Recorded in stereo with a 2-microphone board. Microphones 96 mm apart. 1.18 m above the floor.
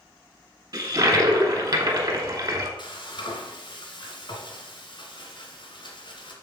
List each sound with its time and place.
0.7 s a toilet flushing: 45° right (ahead or behind), 1.4 m
2.8 s frying: 60° left (ahead or behind), 2.0 m